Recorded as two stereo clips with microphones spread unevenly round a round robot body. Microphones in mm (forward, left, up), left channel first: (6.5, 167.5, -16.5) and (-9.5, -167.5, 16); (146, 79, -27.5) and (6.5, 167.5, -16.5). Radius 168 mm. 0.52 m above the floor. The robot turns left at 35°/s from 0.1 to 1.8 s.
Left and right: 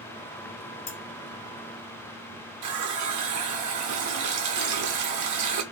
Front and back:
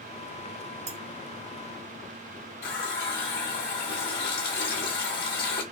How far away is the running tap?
About 0.8 m.